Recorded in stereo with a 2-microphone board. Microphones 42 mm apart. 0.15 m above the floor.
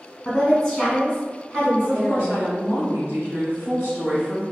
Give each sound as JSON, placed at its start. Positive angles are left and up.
{"t": 0.2, "sound": "a woman speaking", "side_deg": 15, "distance_m": 1.3}
{"t": 1.8, "sound": "a woman speaking", "side_deg": -45, "distance_m": 1.9}